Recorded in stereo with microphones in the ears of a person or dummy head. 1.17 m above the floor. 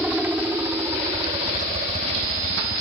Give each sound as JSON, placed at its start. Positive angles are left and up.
{"t": 0.0, "sound": "a helicopter", "side_deg": -5}